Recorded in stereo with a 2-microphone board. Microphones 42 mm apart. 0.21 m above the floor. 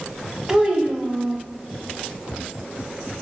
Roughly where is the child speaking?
Centre.